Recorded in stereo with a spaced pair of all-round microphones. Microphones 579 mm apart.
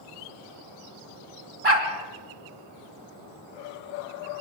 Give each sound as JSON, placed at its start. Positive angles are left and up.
{"t": 1.6, "sound": "a dog barking", "side_deg": -75, "distance_m": 3.5}